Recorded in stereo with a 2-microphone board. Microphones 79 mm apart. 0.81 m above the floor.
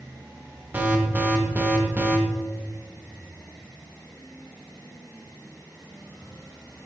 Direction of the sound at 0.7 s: 20° right (ahead or behind).